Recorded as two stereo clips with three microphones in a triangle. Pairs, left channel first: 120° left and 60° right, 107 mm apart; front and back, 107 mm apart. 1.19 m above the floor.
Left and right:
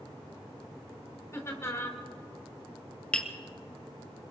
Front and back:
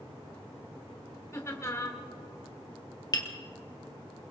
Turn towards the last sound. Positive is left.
turn(degrees=45)